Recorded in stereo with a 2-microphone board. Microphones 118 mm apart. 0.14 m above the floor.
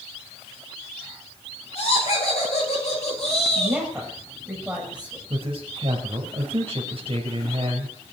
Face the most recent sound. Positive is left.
turn(degrees=-50)  # may be behind; listen again after turning